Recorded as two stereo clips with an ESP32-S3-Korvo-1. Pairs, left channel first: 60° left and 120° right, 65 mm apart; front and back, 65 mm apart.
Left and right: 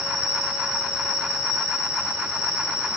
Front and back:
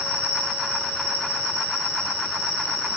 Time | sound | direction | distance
0.0 | an insect | 50° right | 4 m